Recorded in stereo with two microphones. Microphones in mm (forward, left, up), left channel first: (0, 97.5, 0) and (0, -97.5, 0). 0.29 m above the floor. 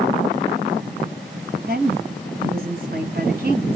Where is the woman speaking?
50° right (ahead or behind), 2.5 m.